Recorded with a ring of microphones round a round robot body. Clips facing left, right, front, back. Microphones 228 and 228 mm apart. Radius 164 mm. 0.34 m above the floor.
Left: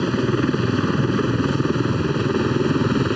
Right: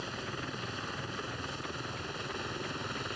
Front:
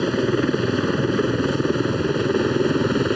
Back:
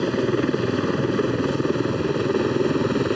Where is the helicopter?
85° left.